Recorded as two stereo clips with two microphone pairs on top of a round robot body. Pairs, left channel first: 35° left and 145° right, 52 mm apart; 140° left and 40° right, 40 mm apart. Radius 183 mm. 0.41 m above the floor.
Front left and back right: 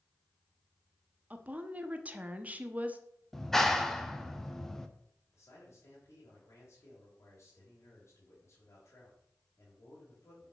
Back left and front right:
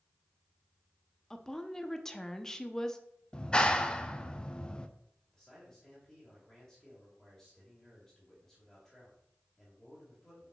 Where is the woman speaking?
160° right, 1.1 m.